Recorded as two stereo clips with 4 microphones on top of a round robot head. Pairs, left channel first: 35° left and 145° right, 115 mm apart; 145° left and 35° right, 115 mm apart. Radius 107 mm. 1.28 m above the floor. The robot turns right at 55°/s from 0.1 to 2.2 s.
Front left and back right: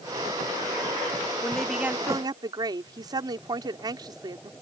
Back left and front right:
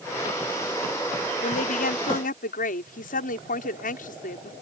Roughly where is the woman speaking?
Left.